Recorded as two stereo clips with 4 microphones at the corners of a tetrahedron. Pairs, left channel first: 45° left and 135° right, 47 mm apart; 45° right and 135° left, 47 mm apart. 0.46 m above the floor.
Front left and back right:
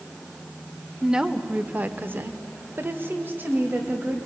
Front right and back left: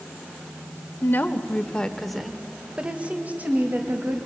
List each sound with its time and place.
1.0 s a woman speaking: 60° right, 1.3 m; by 4.3 s 175° left, 2.5 m